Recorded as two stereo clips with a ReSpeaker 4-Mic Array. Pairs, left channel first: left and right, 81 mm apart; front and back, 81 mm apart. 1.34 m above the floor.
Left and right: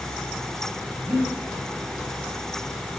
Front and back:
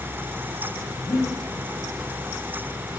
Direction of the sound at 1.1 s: 45° right.